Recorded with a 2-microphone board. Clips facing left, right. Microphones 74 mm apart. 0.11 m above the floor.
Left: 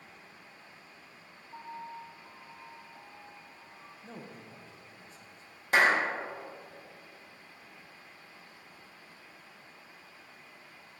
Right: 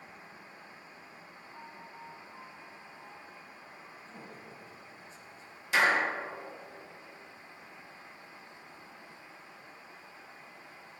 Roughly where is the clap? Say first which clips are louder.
Left 1 dB; left.